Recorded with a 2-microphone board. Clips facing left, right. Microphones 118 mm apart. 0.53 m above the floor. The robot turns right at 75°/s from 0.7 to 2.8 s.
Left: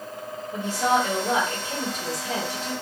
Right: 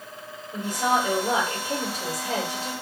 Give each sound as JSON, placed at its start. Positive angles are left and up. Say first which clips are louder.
{"t": 0.5, "sound": "a woman speaking", "louder": "left 1 dB", "azimuth_deg": 170, "distance_m": 2.0}